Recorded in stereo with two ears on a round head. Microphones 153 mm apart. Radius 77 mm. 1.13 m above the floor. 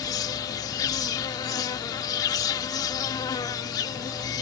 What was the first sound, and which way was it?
An insect, 20° left (ahead or behind).